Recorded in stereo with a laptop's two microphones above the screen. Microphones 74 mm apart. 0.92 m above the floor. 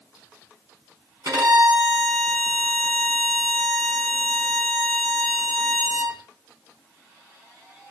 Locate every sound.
1.2 s a violin: 60° right (ahead or behind), 4.5 m